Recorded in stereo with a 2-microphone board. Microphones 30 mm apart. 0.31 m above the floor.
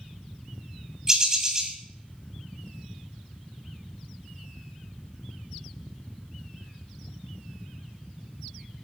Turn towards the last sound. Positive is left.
turn(degrees=-20)  # may be behind; listen again after turning